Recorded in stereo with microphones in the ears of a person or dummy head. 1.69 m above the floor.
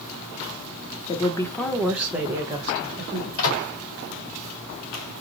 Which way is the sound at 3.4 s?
85° left.